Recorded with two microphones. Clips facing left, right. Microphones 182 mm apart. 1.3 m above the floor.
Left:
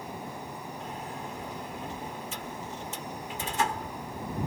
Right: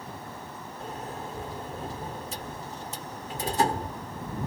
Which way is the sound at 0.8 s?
40° right (ahead or behind).